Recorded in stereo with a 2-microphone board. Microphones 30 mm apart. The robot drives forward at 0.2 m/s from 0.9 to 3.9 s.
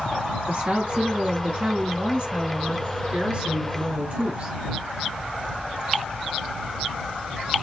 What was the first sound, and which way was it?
A woman speaking, 40° right (ahead or behind).